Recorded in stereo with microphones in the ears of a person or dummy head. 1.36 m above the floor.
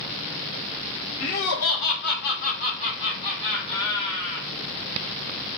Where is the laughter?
85° left, 0.9 m; by 4.5 s 20° left (ahead or behind), 3 m.